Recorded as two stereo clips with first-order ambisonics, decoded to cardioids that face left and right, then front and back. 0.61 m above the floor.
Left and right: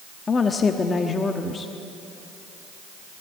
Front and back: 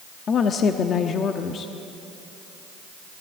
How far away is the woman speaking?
About 1.0 m.